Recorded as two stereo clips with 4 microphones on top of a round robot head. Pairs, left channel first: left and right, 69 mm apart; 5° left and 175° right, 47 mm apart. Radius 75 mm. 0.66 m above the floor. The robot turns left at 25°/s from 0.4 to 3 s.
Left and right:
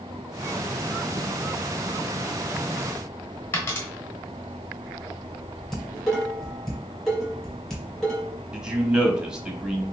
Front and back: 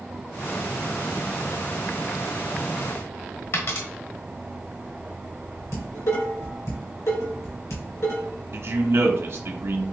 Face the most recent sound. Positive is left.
turn(degrees=-170)